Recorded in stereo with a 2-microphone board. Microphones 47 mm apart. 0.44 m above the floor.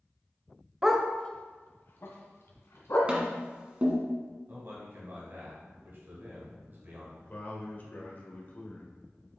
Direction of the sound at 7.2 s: 40° left (ahead or behind).